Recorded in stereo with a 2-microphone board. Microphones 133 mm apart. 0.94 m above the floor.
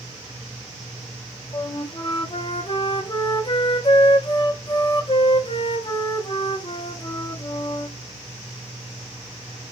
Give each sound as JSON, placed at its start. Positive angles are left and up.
{"t": 1.5, "sound": "a flute", "side_deg": 40, "distance_m": 0.5}